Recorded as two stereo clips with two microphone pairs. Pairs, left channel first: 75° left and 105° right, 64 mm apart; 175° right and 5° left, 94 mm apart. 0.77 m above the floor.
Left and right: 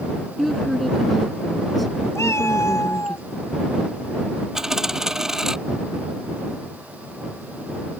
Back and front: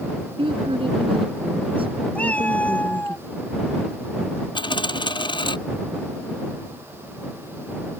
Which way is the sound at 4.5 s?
175° left.